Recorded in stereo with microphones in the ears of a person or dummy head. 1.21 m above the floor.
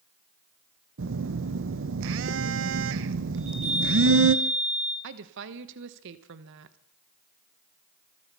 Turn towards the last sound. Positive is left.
turn(degrees=-65)  # may be behind; listen again after turning